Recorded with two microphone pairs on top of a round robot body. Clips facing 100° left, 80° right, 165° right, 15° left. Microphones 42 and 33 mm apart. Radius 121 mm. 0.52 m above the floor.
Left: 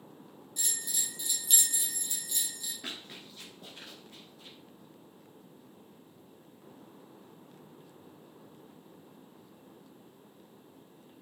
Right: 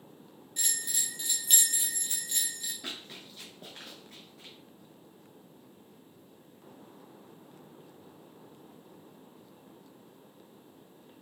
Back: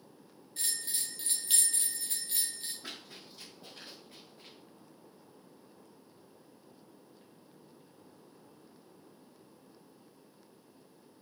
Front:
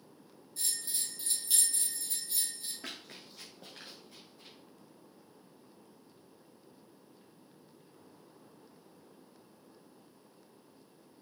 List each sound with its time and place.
0.6 s a bell: 125° right, 0.9 m
2.8 s running footsteps: 30° left, 0.8 m; by 4.5 s 115° right, 0.8 m